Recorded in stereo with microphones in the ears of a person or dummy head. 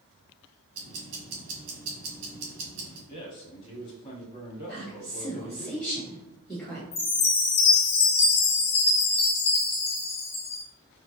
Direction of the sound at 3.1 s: 25° left (ahead or behind).